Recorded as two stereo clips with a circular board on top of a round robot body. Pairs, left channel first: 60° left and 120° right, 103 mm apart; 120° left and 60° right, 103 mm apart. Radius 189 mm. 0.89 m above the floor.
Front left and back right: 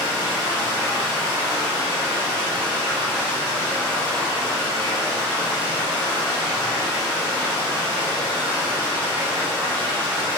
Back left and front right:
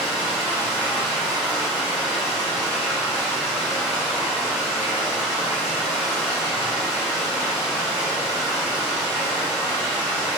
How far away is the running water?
About 0.8 m.